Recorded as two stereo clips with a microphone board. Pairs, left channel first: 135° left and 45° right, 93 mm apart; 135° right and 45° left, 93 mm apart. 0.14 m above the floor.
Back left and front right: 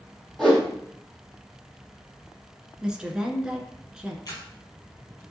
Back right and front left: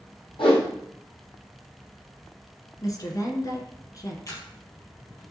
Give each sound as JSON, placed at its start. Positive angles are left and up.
{"t": 0.4, "sound": "a whoosh", "azimuth_deg": -140, "distance_m": 3.0}
{"t": 2.8, "sound": "a woman speaking", "azimuth_deg": -120, "distance_m": 1.7}
{"t": 4.3, "sound": "a camera shutter", "azimuth_deg": 180, "distance_m": 4.0}